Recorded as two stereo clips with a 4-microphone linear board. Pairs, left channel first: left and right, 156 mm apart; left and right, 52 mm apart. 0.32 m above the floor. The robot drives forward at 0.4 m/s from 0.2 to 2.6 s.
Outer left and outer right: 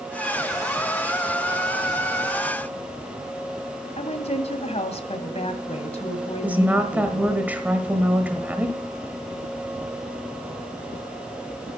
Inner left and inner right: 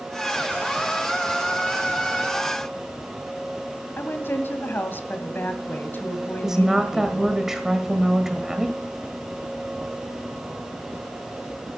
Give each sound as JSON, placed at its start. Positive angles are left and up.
{"t": 4.0, "sound": "a woman speaking", "side_deg": 45, "distance_m": 1.7}
{"t": 6.4, "sound": "a woman speaking", "side_deg": -10, "distance_m": 1.2}